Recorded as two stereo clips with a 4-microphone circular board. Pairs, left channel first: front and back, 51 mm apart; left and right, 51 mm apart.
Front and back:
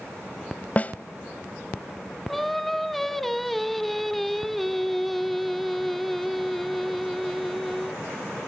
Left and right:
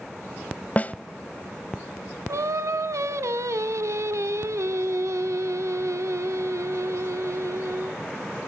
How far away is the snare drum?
About 0.6 m.